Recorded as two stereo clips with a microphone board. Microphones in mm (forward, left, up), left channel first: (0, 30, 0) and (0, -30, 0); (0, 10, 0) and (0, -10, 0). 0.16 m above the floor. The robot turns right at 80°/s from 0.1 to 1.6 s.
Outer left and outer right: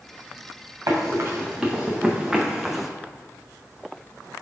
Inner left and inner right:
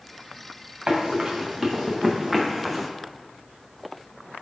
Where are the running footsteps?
75° right (ahead or behind), 1.5 m; by 2.9 s centre (ahead or behind), 0.5 m.